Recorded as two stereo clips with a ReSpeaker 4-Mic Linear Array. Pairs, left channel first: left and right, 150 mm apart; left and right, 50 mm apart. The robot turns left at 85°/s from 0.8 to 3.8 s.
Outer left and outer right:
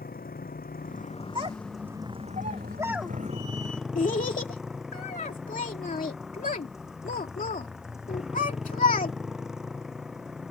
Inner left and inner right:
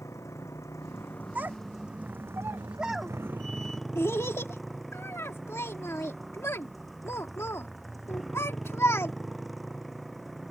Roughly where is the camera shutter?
I don't hear a camera shutter.